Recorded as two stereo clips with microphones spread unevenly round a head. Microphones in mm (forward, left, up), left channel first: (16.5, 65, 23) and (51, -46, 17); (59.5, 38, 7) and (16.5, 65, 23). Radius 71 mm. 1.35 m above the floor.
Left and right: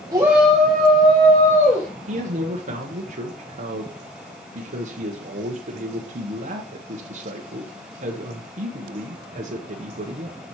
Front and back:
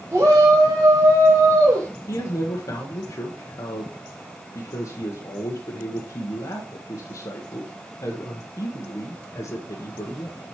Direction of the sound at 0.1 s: 140° right.